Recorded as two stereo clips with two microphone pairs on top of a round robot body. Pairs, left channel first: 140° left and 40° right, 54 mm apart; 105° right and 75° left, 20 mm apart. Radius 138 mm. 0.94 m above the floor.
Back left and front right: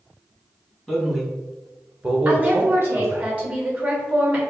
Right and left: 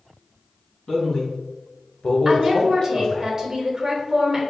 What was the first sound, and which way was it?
A man speaking, 145° right.